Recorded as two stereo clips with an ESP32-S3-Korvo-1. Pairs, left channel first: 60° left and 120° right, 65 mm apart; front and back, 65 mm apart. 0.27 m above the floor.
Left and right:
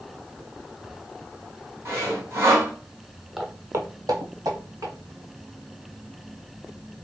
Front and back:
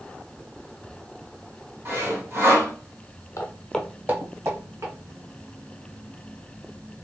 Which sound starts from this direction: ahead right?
Footsteps, at 3.4 s.